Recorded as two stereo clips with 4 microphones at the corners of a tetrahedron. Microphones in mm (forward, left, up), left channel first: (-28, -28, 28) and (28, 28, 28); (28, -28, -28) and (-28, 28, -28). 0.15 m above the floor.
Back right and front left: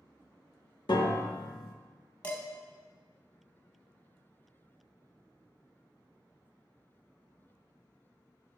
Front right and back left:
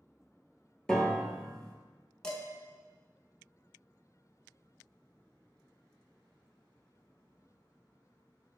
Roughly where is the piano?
Behind right.